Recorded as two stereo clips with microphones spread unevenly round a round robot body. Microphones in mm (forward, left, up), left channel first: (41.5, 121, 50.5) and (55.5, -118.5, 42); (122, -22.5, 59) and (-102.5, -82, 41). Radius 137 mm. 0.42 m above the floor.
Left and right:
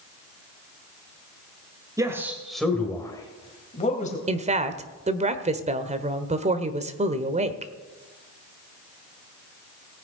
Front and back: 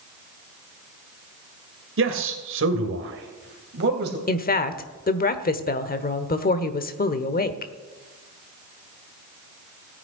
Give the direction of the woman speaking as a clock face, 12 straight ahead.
1 o'clock.